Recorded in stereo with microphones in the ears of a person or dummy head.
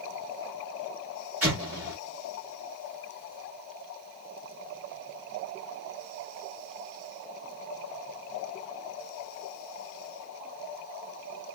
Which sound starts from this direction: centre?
An explosion, at 1.4 s.